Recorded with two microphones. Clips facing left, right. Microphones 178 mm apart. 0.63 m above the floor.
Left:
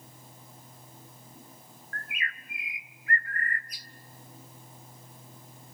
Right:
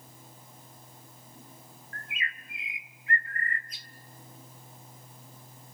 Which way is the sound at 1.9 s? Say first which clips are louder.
Left 1 dB; 25° right (ahead or behind).